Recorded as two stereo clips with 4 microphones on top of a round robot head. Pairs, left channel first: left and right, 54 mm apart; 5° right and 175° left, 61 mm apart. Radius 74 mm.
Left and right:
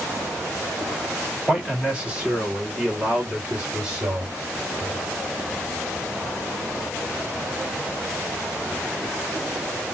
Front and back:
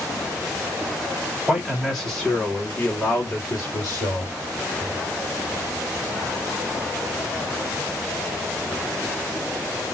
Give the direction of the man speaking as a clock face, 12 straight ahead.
4 o'clock.